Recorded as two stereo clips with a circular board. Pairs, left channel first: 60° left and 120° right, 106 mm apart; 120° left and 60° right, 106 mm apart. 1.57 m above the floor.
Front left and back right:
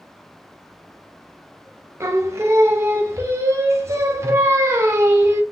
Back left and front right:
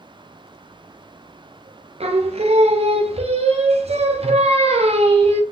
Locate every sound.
2.0 s singing: 55° right, 0.6 m